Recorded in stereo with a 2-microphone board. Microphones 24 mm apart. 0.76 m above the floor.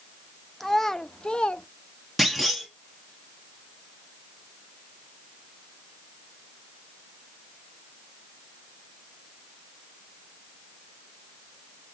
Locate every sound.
0.6 s a child speaking: 5° left (ahead or behind), 0.5 m; by 1.6 s 50° left (ahead or behind), 0.6 m
2.2 s a clunk: centre (ahead or behind), 1.1 m